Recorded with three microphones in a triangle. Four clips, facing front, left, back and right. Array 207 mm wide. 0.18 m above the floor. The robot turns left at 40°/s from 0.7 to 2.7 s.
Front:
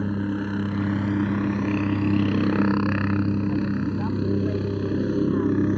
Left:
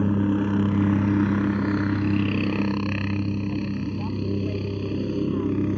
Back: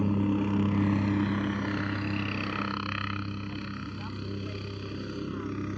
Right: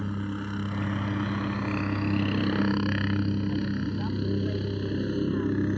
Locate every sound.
0.0 s a helicopter: 80° left; by 5.8 s 20° left